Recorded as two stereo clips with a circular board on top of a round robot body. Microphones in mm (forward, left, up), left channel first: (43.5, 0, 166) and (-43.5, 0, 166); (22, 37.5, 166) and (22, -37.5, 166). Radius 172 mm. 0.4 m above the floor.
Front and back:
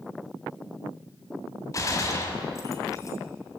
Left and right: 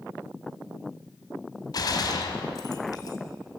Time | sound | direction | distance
1.7 | a gunshot | 55° left | 2.5 m